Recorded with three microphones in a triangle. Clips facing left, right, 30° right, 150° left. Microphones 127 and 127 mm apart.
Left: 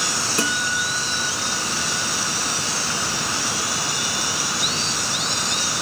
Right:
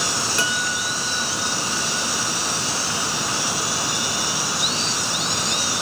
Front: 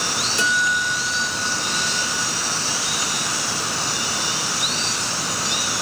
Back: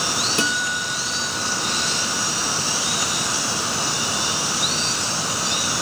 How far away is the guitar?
About 1.2 m.